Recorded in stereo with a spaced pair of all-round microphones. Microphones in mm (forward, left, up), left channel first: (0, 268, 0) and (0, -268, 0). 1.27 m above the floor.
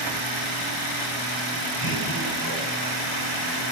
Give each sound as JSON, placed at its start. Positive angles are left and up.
{"t": 1.8, "sound": "laughter", "side_deg": 30, "distance_m": 9.5}